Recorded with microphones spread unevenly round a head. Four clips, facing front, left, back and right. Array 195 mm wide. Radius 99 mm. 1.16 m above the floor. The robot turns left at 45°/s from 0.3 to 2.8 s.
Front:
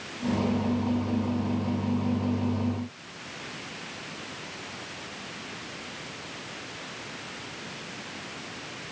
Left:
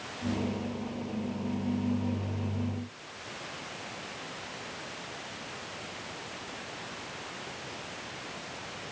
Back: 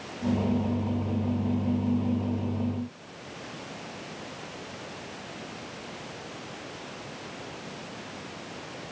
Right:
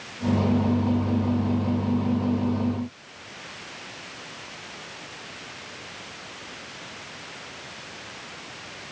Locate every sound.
Only background noise.